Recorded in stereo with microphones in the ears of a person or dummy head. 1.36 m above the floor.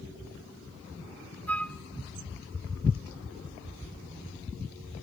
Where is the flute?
10° left (ahead or behind), 1.1 m.